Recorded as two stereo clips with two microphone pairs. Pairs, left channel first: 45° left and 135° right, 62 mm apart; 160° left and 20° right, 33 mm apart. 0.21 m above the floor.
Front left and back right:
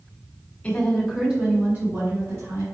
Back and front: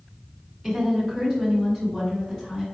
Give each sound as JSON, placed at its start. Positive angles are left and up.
{"t": 0.6, "sound": "a woman speaking", "azimuth_deg": 70, "distance_m": 1.6}